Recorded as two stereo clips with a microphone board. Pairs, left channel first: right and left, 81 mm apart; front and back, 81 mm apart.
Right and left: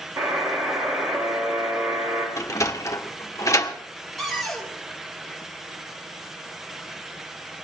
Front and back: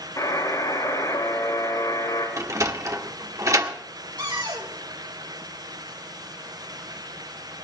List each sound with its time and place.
0.2 s a buzzer: 35° left, 5.5 m
2.4 s a sliding door: 140° right, 1.4 m
4.2 s a cupboard door: 175° right, 4 m